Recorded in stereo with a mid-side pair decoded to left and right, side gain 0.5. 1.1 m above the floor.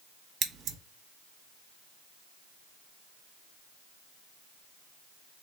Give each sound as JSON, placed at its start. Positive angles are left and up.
{"t": 0.4, "sound": "scissors", "azimuth_deg": -65, "distance_m": 1.1}